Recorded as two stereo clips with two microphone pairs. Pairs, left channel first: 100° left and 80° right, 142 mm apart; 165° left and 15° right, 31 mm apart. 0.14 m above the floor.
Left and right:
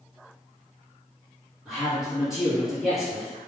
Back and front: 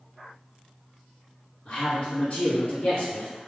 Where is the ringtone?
No ringtone in this recording.